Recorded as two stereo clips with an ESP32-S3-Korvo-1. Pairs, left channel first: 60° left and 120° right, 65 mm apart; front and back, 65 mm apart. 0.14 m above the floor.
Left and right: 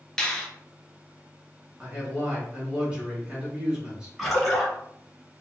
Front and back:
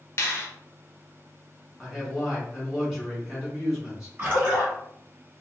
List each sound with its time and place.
0.2 s a finger snap: 15° right, 1.0 m
1.8 s a man speaking: 110° right, 1.5 m
4.2 s a splash: 150° left, 1.6 m